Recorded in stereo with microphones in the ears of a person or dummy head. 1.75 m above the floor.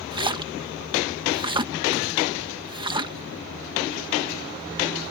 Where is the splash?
25° right (ahead or behind).